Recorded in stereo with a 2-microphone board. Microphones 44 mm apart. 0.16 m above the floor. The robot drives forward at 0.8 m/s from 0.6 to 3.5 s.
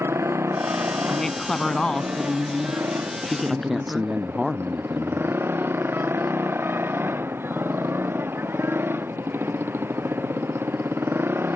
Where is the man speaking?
5° right (ahead or behind).